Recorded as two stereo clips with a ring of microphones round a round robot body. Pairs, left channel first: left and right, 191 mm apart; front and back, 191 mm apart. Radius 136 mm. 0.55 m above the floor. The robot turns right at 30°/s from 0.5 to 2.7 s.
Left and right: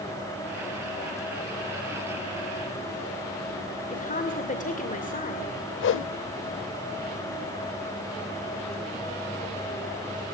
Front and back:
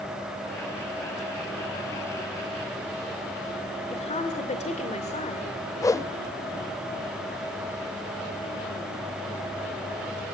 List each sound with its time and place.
3.9 s a woman speaking: 50° left, 2.5 m
5.8 s a whoosh: 75° left, 0.6 m